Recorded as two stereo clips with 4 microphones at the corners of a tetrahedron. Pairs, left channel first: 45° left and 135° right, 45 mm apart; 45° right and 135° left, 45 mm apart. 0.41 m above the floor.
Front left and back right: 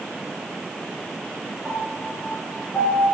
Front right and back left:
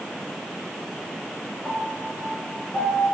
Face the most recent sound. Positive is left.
turn(degrees=-10)